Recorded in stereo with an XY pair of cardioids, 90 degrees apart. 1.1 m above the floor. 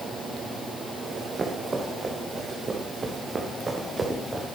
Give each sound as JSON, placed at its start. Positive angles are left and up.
{"t": 1.0, "sound": "running footsteps", "azimuth_deg": -35, "distance_m": 5.0}